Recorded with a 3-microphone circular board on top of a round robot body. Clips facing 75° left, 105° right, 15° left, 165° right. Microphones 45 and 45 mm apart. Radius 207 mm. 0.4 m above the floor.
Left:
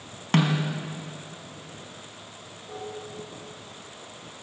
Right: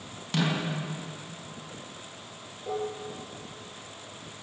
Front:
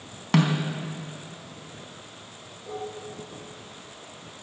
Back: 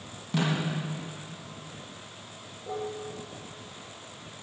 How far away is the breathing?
No breathing in this recording.